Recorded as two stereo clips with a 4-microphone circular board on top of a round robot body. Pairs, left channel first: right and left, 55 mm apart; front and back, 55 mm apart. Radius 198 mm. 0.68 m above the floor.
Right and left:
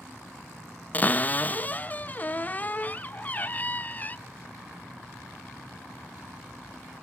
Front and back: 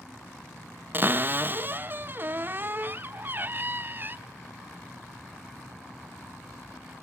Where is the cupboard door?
140° right, 0.7 m.